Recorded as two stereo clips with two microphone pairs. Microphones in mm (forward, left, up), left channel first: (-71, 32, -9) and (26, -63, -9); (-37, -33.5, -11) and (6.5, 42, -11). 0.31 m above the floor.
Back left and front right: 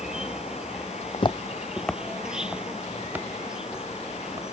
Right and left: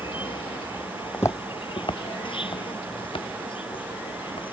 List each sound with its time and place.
0.0 s an insect: 130° right
1.1 s footsteps: 175° left; by 4.4 s 115° right